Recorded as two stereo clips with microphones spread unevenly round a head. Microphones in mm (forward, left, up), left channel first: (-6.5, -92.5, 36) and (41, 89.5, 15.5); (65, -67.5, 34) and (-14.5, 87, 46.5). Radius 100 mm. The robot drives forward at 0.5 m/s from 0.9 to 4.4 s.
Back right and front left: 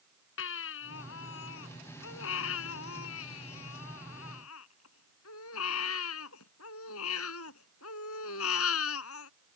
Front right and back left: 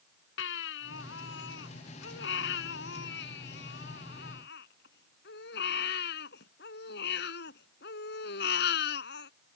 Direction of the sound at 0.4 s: 85° right.